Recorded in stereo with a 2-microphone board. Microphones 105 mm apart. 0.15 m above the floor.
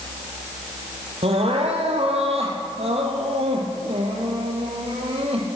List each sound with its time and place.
1.2 s crying: 70° right (ahead or behind), 1.9 m